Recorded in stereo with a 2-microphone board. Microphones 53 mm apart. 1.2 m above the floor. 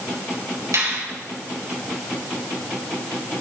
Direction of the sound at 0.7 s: 85° right.